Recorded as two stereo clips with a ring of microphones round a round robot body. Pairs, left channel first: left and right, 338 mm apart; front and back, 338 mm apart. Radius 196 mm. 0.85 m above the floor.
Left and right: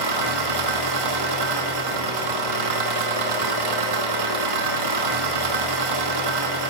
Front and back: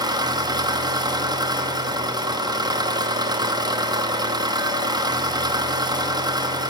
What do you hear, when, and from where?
0.0 s an engine running: 100° right, 1.0 m